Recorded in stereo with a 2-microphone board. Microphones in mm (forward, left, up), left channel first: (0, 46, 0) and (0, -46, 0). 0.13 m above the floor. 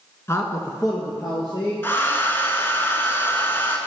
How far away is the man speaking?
About 1.2 m.